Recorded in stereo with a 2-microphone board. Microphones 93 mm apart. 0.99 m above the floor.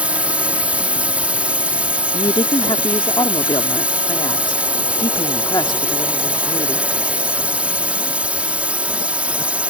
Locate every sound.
0.0 s a drone: 15° right (ahead or behind)
2.1 s a woman speaking: 50° left (ahead or behind)